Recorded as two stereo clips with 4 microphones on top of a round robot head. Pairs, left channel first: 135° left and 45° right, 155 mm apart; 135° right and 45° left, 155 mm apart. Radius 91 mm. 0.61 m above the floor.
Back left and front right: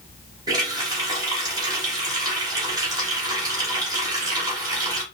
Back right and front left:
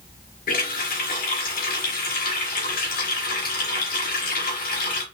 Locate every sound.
0.5 s a running tap: 110° right, 2 m